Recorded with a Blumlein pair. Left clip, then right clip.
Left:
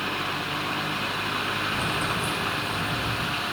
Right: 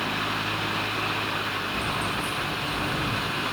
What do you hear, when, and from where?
1.7 s keys jangling: 55° left, 3.5 m; by 3.3 s 50° left, 2.5 m